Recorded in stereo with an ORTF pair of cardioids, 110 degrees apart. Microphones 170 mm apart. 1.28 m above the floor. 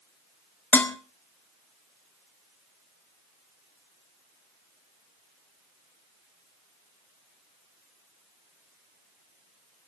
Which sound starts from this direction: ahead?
Dishes clattering, at 0.7 s.